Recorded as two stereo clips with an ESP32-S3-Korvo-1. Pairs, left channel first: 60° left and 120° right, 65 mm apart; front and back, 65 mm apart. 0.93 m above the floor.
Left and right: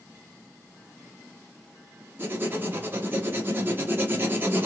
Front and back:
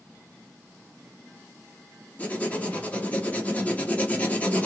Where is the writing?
65° right, 0.8 m.